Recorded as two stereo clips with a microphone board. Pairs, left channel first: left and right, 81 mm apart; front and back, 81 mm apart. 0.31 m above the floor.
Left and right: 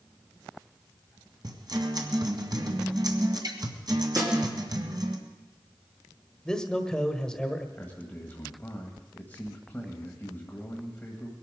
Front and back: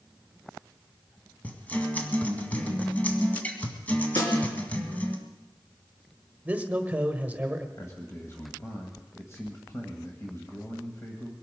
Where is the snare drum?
35° right, 3 m.